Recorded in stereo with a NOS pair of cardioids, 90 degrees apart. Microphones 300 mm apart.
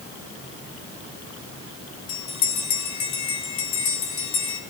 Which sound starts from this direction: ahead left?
A bell, at 2.1 s.